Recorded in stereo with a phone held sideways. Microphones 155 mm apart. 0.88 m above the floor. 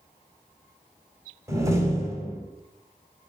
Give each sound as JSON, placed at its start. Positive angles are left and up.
{"t": 1.5, "sound": "a door slam", "side_deg": -20, "distance_m": 2.5}